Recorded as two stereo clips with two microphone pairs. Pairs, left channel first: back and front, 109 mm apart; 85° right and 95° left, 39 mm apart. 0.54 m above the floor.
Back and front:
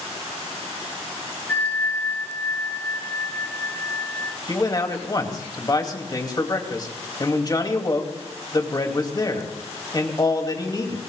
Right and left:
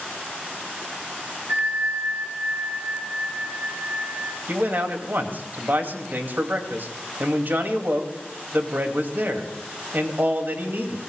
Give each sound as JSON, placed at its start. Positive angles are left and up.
{"t": 1.5, "sound": "a bell", "azimuth_deg": 105, "distance_m": 4.5}
{"t": 4.5, "sound": "a man speaking", "azimuth_deg": 125, "distance_m": 2.5}